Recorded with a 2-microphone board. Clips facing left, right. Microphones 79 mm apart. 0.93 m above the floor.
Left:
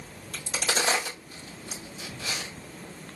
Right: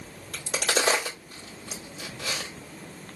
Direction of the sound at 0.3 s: 65° right (ahead or behind).